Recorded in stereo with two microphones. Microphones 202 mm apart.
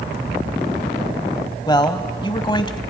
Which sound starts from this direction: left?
A man speaking, at 1.7 s.